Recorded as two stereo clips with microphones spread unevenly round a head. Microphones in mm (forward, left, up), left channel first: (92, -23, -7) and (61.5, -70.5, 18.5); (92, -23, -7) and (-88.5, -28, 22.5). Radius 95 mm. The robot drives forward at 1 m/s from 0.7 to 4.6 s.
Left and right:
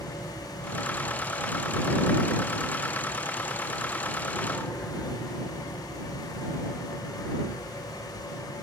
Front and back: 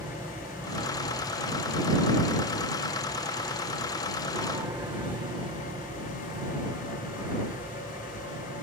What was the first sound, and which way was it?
An aircraft, 100° left.